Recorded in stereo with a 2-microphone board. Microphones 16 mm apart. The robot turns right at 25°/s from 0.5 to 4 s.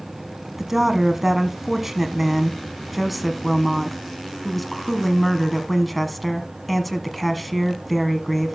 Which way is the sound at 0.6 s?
20° right (ahead or behind).